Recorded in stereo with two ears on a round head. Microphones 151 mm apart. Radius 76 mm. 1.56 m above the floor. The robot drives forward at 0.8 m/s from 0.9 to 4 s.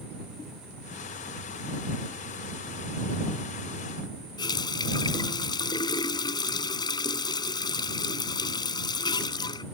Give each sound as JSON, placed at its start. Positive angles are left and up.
{"t": 4.4, "sound": "a running tap", "side_deg": 25}